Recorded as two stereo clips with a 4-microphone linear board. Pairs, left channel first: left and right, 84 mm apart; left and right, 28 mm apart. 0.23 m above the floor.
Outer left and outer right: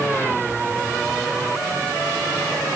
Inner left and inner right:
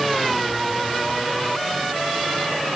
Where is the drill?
I don't hear a drill.